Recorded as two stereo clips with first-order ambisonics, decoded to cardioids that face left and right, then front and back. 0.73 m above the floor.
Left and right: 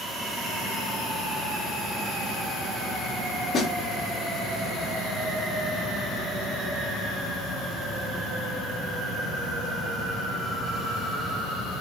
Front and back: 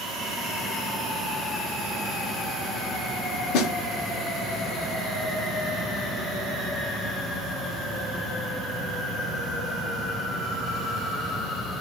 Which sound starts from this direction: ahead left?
A snare drum, at 3.5 s.